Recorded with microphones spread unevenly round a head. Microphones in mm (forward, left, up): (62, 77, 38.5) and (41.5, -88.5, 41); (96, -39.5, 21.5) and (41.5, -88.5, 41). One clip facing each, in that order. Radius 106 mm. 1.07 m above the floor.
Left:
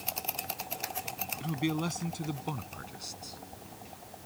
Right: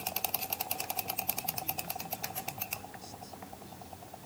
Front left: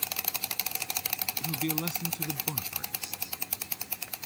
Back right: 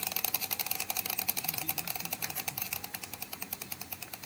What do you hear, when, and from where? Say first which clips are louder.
1.4 s a man speaking: left 10 dB, front left 9 dB; 80° left; by 3.4 s 70° left